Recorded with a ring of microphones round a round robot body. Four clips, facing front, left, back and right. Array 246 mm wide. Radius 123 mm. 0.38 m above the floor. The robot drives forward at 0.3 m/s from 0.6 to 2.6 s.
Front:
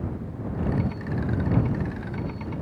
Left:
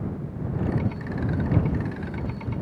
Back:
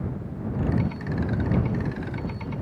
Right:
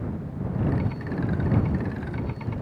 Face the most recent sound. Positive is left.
No sound to turn to.